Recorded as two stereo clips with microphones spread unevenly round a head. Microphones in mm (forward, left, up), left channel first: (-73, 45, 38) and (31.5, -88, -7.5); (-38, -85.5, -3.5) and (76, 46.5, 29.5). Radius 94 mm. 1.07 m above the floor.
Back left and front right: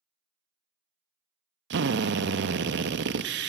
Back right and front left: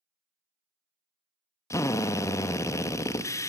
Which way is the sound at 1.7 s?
60° right.